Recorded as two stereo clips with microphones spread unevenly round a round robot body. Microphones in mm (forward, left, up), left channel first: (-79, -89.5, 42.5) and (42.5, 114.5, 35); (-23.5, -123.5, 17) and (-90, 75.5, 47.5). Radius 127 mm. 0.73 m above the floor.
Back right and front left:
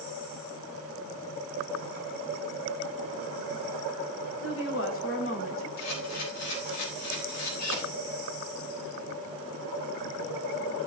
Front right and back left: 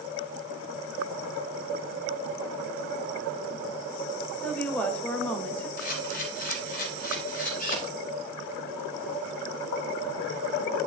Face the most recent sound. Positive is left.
turn(degrees=-115)